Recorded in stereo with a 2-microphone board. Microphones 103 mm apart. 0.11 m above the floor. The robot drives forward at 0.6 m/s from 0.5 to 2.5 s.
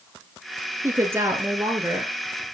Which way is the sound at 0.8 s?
25° right (ahead or behind).